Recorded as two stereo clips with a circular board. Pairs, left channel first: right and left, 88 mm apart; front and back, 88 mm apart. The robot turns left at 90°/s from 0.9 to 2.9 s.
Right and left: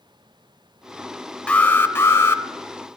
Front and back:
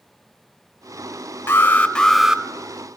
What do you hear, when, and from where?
1.5 s an alarm: 25° right, 0.6 m; by 2.4 s 115° right, 0.6 m